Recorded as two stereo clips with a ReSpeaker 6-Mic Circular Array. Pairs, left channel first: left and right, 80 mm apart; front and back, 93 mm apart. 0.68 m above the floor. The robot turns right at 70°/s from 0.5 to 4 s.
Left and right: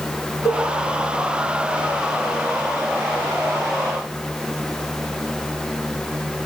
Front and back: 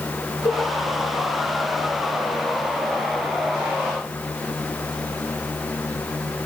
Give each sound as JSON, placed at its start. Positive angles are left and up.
{"t": 0.5, "sound": "a cowbell", "azimuth_deg": 50, "distance_m": 5.5}